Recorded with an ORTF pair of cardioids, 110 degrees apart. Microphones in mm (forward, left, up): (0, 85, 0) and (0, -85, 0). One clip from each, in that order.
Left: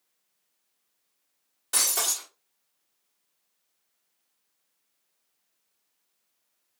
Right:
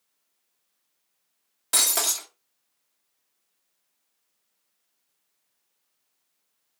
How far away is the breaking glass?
About 1.1 m.